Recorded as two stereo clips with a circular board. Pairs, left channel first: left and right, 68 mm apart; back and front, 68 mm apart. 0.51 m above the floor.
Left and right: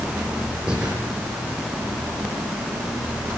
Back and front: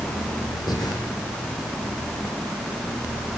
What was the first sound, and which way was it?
Breathing, 165° right.